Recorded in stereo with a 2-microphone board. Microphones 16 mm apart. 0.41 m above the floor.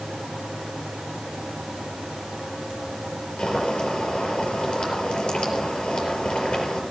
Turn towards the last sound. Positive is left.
turn(degrees=70)  # may be behind; listen again after turning